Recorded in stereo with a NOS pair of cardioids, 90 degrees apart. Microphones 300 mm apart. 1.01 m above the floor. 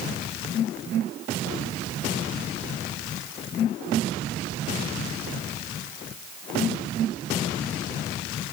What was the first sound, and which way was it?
Only background noise.